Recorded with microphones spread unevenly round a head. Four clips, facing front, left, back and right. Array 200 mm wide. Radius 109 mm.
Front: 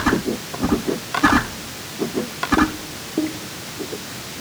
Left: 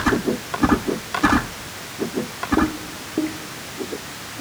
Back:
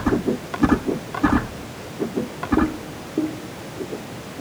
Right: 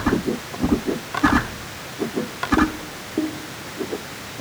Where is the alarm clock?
I don't hear an alarm clock.